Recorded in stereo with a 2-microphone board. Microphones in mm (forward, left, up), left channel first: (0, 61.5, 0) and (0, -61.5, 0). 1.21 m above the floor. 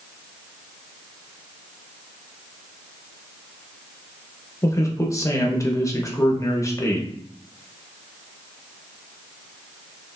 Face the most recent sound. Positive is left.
turn(degrees=25)  # may be behind; listen again after turning